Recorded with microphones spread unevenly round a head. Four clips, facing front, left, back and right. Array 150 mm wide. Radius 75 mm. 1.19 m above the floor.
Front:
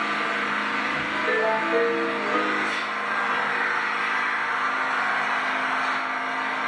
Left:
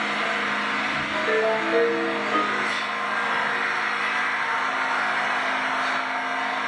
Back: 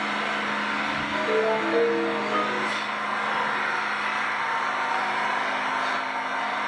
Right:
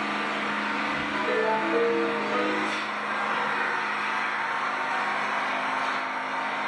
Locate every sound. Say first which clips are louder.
0.0 s an engine running: left 3 dB, front 1 dB; 35° left, 1.1 m
1.1 s a ringtone: left 3 dB, back 1 dB; 35° left, 1.1 m